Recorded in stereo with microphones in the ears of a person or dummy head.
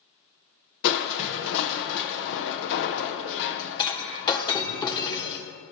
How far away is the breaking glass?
About 1.1 m.